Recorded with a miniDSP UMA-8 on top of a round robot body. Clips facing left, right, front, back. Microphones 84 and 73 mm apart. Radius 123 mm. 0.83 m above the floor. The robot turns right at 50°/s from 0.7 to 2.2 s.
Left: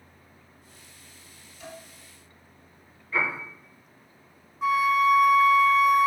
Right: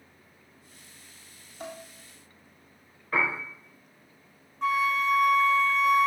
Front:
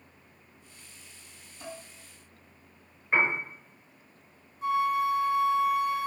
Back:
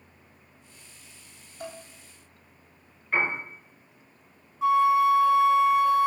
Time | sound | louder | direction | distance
1.6 | dishes clattering | right 3 dB, back 3 dB | 130° right | 3.5 m
3.1 | a piano | right 1 dB, front 1 dB | 70° right | 5 m
4.6 | a flute | left 4 dB, back 6 dB | 175° left | 0.9 m